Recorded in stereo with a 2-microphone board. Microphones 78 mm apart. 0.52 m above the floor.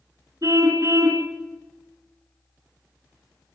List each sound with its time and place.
0.4 s a car horn: 45° right (ahead or behind), 2.5 m